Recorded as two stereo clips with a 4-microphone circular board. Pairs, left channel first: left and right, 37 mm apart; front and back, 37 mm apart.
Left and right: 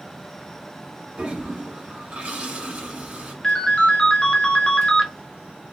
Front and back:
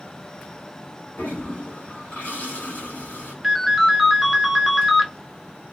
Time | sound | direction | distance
1.2 | a toilet flushing | 40° right | 1.4 m
3.4 | a ringtone | 110° left | 0.6 m